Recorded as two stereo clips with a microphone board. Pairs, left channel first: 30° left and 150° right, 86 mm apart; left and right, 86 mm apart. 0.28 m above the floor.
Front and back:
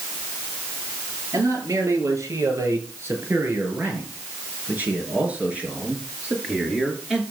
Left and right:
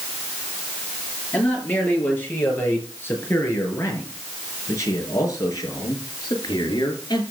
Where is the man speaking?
160° left, 6.5 m; by 7.2 s 125° left, 5.5 m.